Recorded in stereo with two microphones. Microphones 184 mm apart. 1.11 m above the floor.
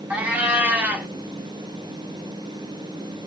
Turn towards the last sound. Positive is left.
turn(degrees=-10)  # may be behind; listen again after turning